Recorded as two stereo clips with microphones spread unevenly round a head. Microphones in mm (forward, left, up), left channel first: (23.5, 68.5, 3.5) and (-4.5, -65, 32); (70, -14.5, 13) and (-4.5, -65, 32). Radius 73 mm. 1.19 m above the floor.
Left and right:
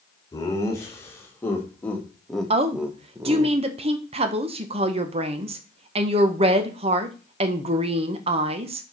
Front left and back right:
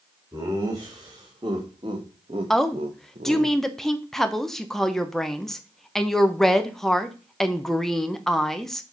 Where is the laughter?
145° left, 2.5 m; by 3.5 s 165° right, 0.9 m.